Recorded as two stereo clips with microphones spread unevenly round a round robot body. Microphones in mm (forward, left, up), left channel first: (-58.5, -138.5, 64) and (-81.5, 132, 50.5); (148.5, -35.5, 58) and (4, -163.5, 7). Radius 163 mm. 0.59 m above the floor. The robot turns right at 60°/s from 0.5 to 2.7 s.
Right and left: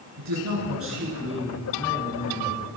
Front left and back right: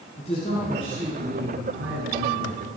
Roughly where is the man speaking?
Left.